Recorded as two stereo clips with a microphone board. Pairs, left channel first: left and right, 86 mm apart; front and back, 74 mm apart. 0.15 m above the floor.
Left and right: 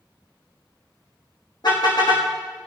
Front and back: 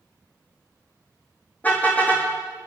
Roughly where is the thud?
I don't hear a thud.